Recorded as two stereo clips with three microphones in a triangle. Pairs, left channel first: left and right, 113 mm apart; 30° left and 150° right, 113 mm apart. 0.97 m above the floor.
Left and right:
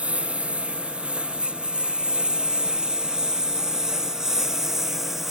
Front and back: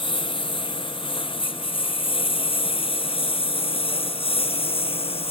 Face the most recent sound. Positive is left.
turn(degrees=0)